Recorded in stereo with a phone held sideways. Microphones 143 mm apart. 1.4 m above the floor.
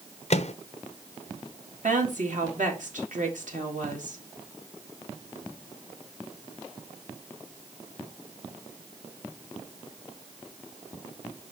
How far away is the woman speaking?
About 2 m.